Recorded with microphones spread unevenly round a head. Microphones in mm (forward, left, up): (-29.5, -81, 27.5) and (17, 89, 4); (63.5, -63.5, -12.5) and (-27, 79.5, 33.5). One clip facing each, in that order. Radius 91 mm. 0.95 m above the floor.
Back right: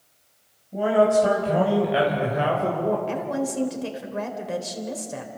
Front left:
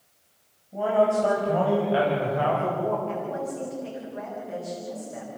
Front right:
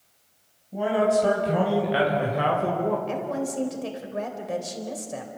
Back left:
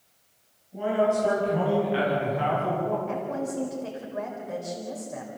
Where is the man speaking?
35° right, 5 m; by 3.0 s 40° right, 3 m.